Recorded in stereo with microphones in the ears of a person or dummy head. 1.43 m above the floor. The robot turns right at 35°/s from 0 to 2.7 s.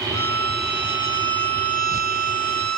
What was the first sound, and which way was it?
A violin, 160° left.